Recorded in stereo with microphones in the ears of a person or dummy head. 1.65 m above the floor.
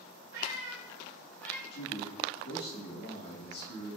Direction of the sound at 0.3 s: 55° right (ahead or behind).